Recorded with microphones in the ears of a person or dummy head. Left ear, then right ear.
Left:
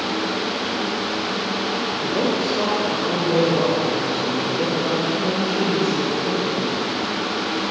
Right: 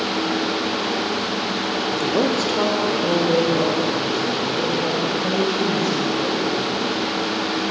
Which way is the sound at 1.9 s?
65° right (ahead or behind).